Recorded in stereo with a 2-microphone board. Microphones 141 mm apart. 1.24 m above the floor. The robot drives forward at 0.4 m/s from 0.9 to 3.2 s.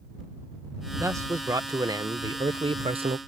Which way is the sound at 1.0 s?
20° right (ahead or behind).